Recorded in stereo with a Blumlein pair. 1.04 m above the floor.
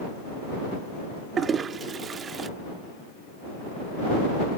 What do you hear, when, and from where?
1.4 s a toilet flushing: 20° right